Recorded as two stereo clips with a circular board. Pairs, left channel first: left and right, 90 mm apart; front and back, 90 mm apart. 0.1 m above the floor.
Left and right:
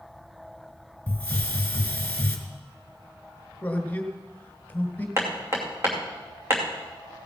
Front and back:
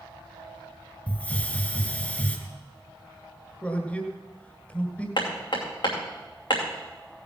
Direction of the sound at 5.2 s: 30° right.